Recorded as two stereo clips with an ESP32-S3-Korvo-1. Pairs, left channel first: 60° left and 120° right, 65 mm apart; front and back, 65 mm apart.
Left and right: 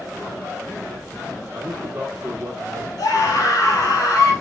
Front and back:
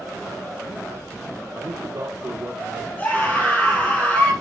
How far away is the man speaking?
About 2.5 m.